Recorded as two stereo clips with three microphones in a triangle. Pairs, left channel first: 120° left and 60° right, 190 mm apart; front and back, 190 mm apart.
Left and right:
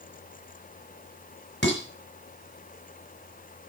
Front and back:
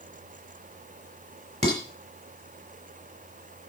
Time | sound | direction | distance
1.6 | dishes clattering | 125° left | 4.5 m